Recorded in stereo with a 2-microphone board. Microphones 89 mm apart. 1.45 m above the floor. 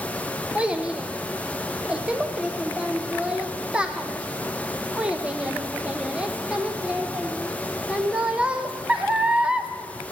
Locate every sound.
0.6 s a child speaking: 10° right (ahead or behind), 0.6 m